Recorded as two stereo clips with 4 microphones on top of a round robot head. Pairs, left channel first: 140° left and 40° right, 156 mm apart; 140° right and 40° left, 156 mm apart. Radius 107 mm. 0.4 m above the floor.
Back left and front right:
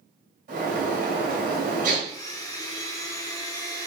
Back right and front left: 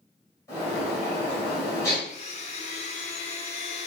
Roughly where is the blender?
Behind.